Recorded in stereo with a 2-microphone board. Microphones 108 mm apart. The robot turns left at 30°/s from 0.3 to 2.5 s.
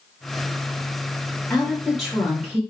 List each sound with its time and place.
1.5 s a woman speaking: 15° left, 1.0 m; by 2.6 s 15° right, 1.0 m